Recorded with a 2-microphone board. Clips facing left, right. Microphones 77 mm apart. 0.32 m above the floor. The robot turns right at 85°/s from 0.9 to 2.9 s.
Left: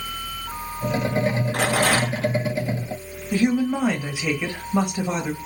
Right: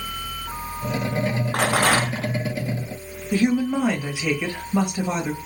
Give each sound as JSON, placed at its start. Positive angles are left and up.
{"t": 1.5, "sound": "a rattle", "azimuth_deg": -95, "distance_m": 3.0}
{"t": 3.3, "sound": "a woman speaking", "side_deg": 10, "distance_m": 1.7}